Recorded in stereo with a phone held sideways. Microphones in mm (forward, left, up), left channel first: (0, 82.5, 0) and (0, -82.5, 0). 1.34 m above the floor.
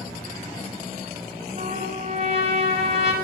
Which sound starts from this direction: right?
A trumpet, at 1.6 s.